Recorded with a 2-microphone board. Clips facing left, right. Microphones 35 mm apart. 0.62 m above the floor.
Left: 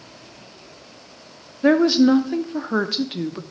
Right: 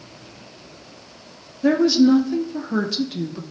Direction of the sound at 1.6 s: 30° left (ahead or behind).